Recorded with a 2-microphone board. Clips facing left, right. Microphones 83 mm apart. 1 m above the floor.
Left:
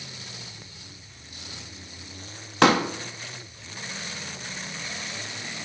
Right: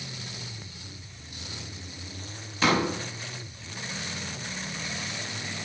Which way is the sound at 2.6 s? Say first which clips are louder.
Left 5 dB; 70° left (ahead or behind).